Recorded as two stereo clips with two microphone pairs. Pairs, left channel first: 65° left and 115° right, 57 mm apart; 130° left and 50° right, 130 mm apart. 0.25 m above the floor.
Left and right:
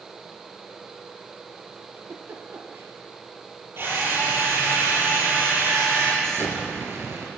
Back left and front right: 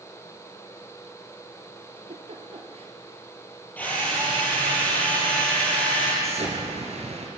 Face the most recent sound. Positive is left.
turn(degrees=-80)